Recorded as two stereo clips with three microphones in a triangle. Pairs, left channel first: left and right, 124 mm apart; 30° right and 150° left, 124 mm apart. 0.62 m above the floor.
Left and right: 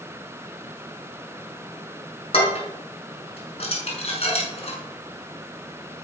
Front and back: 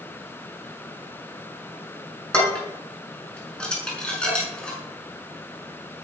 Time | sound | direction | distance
2.3 | dishes clattering | 50° left | 5.5 m